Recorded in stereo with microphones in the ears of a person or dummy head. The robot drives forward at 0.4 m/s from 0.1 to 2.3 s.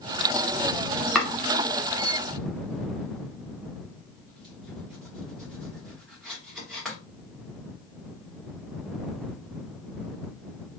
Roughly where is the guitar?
No guitar in this recording.